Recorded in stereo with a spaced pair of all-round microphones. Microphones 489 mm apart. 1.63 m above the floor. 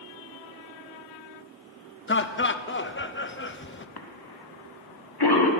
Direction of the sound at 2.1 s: 25° left (ahead or behind).